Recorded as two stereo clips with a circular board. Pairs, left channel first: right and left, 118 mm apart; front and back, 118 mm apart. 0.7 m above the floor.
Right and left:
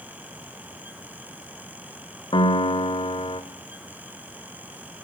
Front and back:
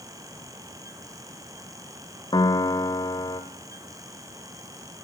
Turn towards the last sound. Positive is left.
turn(degrees=-50)